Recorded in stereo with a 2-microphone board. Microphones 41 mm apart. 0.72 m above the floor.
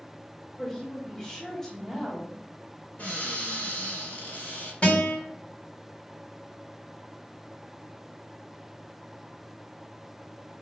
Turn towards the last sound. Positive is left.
turn(degrees=40)  # may be behind; listen again after turning